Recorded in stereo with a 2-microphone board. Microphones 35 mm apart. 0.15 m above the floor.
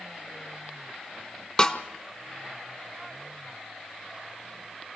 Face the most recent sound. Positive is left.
turn(degrees=20)  # may be behind; listen again after turning